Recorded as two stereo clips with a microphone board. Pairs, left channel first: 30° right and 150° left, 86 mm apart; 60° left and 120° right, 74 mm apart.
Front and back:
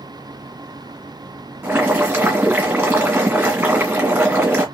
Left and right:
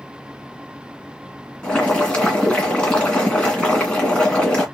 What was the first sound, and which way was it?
Boiling, 115° left.